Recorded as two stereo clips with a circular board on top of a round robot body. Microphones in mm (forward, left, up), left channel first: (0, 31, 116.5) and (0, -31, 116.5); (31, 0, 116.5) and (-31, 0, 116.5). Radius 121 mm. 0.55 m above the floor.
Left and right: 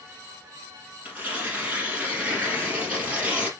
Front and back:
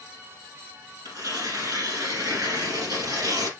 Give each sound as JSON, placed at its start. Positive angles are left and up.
{"t": 1.1, "sound": "tearing paper", "azimuth_deg": -160, "distance_m": 3.5}